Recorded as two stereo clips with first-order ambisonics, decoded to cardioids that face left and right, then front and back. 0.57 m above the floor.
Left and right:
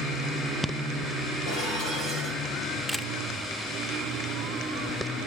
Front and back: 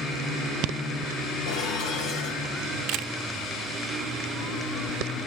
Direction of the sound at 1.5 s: 35° left.